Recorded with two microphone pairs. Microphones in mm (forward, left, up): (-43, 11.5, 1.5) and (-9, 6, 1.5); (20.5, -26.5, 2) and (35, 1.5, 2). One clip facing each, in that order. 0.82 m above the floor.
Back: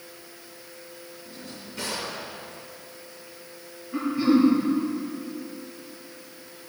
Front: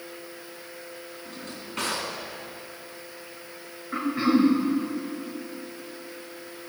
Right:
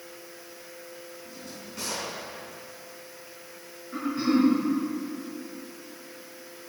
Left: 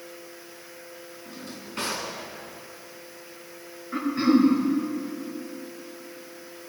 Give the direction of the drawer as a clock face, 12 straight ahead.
11 o'clock.